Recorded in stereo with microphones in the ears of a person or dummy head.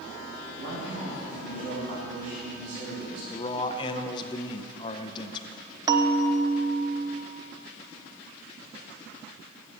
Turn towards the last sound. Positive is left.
turn(degrees=-15)  # may be behind; listen again after turning